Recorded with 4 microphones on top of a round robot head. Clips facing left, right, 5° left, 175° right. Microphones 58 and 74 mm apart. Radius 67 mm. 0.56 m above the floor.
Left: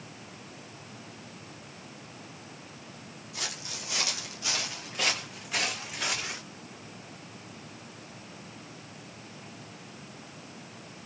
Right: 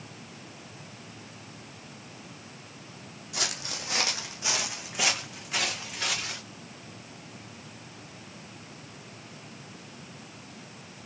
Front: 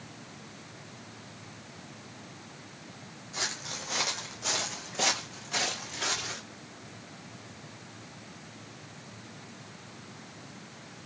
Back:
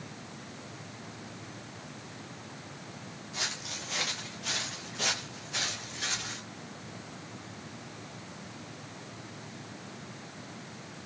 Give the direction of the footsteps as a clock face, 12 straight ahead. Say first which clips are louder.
Right 5 dB, front 2 dB; 2 o'clock.